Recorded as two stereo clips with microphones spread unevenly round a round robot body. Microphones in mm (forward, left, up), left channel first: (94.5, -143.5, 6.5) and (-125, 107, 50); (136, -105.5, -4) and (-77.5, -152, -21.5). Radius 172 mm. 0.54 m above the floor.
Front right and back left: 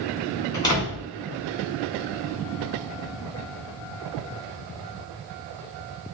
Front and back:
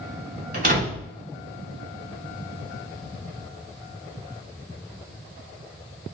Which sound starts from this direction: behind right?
A door slam, at 0.5 s.